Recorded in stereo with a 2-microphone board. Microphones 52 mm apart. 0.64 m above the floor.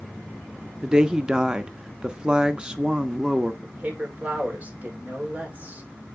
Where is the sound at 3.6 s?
30° right (ahead or behind), 2 m.